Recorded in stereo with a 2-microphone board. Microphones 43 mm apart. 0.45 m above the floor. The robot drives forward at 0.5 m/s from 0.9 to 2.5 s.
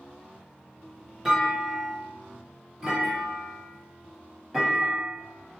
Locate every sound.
1.2 s a clunk: 15° right (ahead or behind), 1.0 m; by 5.6 s 10° right (ahead or behind), 1.6 m